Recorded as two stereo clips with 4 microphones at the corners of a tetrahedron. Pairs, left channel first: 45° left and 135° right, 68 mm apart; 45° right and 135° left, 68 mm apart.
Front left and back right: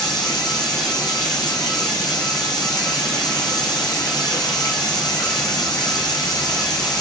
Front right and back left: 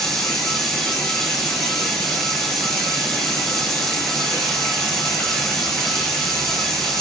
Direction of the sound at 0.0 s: 35° left.